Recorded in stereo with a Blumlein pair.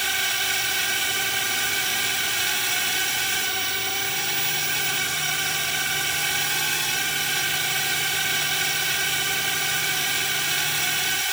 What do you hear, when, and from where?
0.0 s a drone: 5° right